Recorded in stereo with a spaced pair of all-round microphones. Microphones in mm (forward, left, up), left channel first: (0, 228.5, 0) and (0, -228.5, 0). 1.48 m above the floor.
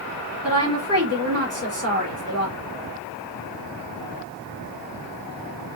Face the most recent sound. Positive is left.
turn(degrees=-30)  # may be behind; listen again after turning